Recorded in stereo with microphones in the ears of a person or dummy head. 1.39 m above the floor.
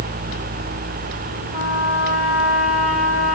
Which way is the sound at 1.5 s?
40° right (ahead or behind).